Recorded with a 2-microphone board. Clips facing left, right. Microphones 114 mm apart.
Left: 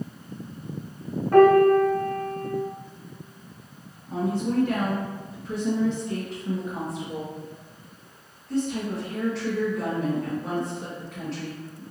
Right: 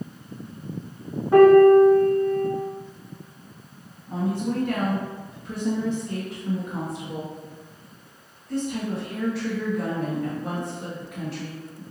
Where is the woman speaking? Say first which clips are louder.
Even; 5° right (ahead or behind), 1.5 m.